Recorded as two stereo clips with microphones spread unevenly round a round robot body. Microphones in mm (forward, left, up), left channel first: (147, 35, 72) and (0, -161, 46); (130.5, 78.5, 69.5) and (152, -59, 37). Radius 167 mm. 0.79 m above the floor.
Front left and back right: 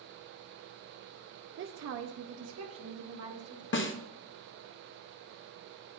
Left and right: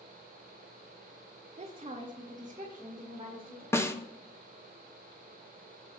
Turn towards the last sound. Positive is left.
turn(degrees=20)